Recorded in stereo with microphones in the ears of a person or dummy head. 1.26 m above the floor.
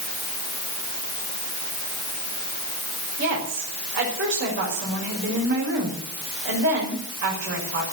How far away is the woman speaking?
About 6 m.